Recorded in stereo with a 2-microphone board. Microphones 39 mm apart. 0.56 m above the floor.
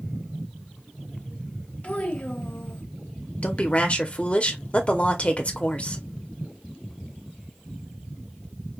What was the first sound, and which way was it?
A child speaking, 35° left (ahead or behind).